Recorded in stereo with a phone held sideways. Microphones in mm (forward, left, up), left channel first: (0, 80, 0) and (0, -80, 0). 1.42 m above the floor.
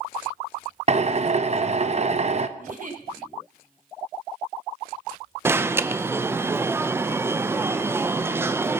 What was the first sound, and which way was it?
A drill, 45° right (ahead or behind).